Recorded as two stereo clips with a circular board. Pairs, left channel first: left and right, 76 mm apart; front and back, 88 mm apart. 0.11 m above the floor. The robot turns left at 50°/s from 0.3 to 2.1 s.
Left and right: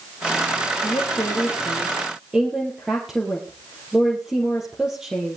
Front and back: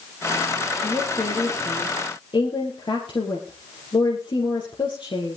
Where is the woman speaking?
55° left, 3 m; by 5.4 s 10° right, 3 m.